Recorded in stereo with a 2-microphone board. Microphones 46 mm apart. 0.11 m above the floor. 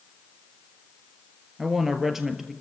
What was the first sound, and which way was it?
A woman speaking, 5° right (ahead or behind).